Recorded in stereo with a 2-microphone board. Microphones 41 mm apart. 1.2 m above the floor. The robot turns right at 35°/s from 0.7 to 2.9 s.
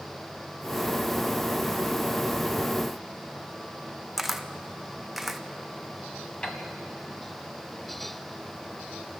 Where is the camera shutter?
5° right (ahead or behind), 0.7 m.